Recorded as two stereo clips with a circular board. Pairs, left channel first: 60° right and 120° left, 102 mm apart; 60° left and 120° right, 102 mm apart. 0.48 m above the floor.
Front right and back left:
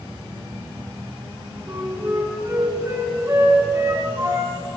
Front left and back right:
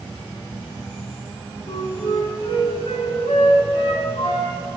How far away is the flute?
About 4 m.